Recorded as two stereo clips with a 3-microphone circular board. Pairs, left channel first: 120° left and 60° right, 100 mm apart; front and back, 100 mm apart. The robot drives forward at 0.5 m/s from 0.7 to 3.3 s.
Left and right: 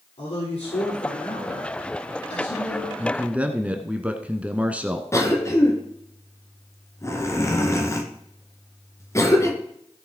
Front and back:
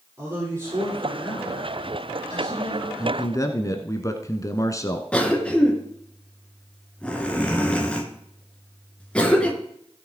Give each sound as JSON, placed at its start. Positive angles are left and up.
{"t": 0.2, "sound": "a man speaking", "azimuth_deg": 115, "distance_m": 6.0}
{"t": 3.0, "sound": "a man speaking", "azimuth_deg": 5, "distance_m": 1.3}
{"t": 5.1, "sound": "a cough", "azimuth_deg": 75, "distance_m": 1.9}